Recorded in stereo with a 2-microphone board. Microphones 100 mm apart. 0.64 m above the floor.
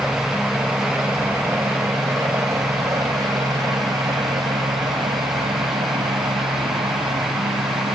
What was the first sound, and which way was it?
A helicopter, 10° right (ahead or behind).